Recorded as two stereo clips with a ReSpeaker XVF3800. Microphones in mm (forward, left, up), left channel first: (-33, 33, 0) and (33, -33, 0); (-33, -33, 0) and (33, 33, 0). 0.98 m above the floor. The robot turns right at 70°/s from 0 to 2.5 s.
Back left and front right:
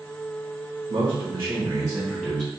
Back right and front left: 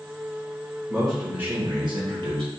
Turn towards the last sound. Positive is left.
turn(degrees=75)